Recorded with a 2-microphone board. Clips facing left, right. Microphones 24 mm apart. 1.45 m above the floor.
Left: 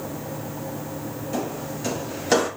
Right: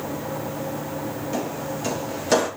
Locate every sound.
1.3 s footsteps: 5° right (ahead or behind), 1.8 m; by 2.5 s 15° left (ahead or behind), 2 m